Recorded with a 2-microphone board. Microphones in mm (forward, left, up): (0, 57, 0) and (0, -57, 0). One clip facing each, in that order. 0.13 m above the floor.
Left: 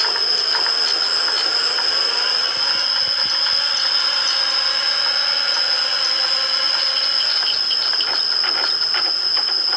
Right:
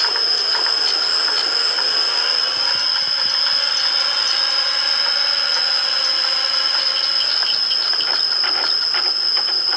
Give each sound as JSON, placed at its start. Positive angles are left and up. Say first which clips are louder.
{"t": 0.0, "sound": "an insect", "louder": "even", "side_deg": 0, "distance_m": 2.0}